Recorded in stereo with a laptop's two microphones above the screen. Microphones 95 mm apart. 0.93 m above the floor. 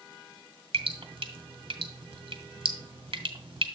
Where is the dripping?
70° right (ahead or behind), 1.1 m.